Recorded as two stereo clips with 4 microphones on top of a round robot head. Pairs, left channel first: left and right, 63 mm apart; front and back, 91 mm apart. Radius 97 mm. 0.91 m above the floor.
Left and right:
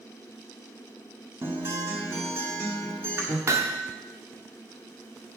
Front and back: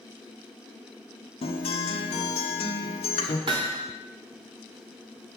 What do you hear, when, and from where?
1.4 s a guitar: 25° right, 1.2 m
3.5 s hammering: 135° right, 0.9 m